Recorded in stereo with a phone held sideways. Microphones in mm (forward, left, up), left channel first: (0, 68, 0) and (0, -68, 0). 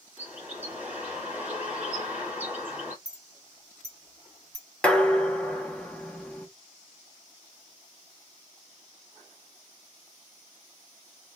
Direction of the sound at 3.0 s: 30° left (ahead or behind).